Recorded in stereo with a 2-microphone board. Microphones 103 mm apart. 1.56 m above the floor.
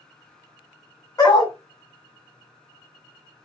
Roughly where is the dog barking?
Left.